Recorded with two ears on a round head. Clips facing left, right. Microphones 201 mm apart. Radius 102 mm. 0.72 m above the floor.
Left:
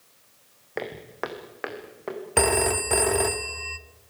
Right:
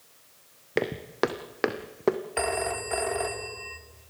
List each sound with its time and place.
0.8 s footsteps: 40° right (ahead or behind), 2 m; by 2.2 s 65° right (ahead or behind), 2.0 m
2.4 s a phone ringing: 60° left (ahead or behind), 0.9 m